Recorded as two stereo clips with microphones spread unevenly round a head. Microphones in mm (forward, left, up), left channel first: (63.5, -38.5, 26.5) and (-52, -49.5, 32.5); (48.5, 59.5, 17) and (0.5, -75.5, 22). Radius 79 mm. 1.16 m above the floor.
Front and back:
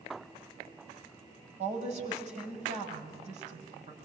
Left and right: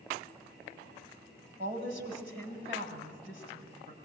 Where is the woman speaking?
160° right, 6 m.